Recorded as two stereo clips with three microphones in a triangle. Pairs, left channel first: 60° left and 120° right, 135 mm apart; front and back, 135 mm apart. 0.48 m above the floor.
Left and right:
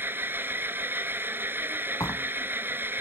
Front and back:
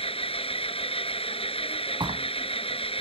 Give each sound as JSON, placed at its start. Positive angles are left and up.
{"t": 0.0, "sound": "an engine running", "azimuth_deg": -45}
{"t": 2.0, "sound": "a door slam", "azimuth_deg": 125}